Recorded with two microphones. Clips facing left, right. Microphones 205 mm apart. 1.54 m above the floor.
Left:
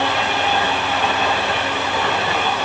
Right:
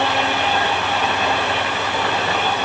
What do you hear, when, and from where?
Only background noise.